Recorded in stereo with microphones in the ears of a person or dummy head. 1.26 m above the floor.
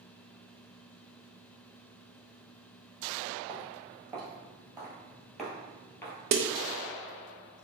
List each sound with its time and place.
3.5 s footsteps: 35° right (ahead or behind), 2.0 m; by 6.2 s 15° left (ahead or behind), 1.3 m
6.3 s a snare drum: 50° right (ahead or behind), 0.5 m